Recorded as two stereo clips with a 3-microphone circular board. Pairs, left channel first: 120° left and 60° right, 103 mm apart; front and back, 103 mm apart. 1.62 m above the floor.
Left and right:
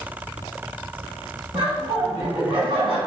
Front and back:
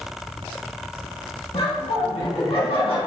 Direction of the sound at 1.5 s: 25° right.